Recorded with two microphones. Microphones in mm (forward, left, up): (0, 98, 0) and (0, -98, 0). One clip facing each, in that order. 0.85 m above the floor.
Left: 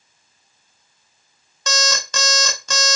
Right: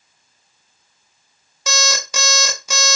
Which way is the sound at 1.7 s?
10° right (ahead or behind).